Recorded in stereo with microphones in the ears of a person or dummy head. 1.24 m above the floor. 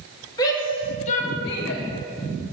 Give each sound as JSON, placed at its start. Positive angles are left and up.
{"t": 0.4, "sound": "a shout", "side_deg": 25, "distance_m": 2.5}